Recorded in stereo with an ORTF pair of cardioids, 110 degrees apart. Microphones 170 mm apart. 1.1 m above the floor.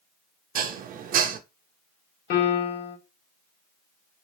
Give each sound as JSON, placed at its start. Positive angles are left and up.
{"t": 0.6, "sound": "dishes clattering", "azimuth_deg": -55, "distance_m": 0.7}
{"t": 2.3, "sound": "a piano", "azimuth_deg": 65, "distance_m": 1.5}